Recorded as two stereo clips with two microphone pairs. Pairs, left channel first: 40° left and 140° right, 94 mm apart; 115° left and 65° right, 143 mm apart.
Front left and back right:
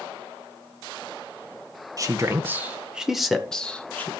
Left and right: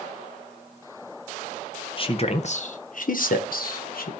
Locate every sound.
2.0 s a man speaking: 170° left, 1.3 m; by 4.1 s 115° left, 1.8 m